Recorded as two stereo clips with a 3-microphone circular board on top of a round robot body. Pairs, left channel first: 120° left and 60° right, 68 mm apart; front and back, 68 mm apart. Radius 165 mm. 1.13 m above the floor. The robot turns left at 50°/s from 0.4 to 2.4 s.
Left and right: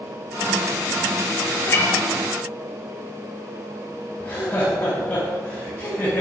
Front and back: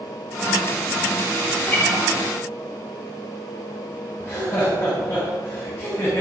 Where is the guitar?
70° left, 1.9 m; by 2.0 s 50° left, 1.9 m.